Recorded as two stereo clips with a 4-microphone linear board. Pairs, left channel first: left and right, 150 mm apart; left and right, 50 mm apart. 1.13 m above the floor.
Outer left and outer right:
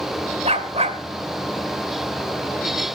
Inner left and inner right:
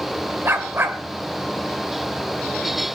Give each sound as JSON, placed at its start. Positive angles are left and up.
{"t": 0.5, "sound": "a dog barking", "side_deg": -45, "distance_m": 2.0}